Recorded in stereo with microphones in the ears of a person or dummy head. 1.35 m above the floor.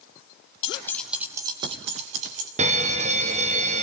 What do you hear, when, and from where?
0.6 s keys jangling: 30° left (ahead or behind), 1.1 m; by 2.5 s 45° right (ahead or behind), 3 m
2.6 s a fire alarm: 35° right (ahead or behind), 1.2 m